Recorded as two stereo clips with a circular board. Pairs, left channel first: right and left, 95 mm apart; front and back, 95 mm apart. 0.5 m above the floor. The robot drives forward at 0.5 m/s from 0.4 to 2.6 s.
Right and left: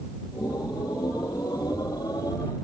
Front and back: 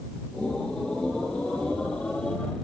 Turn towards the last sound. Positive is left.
No sound to turn to.